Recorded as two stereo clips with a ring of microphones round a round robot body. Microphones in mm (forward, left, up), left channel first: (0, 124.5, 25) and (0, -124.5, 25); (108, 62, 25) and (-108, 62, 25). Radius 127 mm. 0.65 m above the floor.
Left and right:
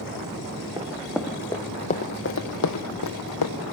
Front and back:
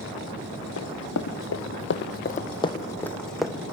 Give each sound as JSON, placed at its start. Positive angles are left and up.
{"t": 0.8, "sound": "running footsteps", "azimuth_deg": -15, "distance_m": 2.0}